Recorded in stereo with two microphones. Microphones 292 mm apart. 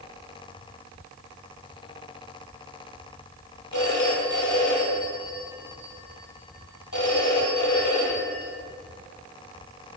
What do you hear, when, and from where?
3.7 s a phone ringing: 80° left, 4 m